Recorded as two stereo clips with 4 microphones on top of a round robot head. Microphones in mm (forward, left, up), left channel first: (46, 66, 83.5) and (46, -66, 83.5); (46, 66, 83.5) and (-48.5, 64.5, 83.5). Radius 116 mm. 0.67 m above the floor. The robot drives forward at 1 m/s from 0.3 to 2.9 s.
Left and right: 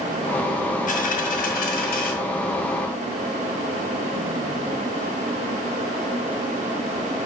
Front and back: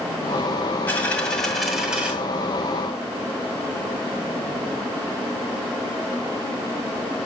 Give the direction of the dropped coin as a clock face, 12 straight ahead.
10 o'clock.